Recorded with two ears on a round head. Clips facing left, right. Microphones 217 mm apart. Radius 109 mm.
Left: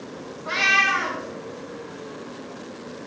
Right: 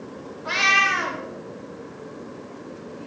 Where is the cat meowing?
65° right (ahead or behind), 3 m.